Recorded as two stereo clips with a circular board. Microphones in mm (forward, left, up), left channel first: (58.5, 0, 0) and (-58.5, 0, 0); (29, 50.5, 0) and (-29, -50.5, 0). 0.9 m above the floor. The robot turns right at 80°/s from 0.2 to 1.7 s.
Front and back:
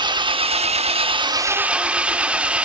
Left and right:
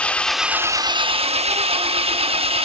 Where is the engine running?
140° left, 0.7 m; by 2.6 s 100° right, 0.7 m.